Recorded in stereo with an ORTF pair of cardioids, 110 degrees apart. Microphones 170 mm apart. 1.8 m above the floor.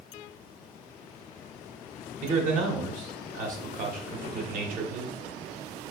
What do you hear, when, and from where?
2.2 s a man speaking: 55° right, 1.2 m